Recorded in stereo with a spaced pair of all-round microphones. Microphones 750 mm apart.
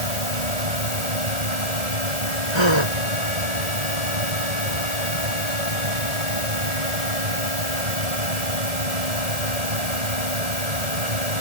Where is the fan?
60° right (ahead or behind).